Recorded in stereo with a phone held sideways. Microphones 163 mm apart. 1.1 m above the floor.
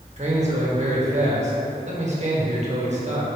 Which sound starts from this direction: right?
A man speaking, at 0.2 s.